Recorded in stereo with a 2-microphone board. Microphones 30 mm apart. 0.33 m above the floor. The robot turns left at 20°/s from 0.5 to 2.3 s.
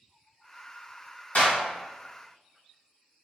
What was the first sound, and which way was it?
A clap, 60° left (ahead or behind).